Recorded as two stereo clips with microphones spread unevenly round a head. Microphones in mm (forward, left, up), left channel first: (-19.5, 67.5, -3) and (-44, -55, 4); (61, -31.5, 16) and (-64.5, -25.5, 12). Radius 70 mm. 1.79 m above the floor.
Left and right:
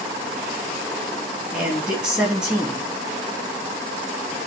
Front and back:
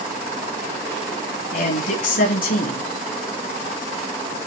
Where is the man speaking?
15° right, 3.5 m.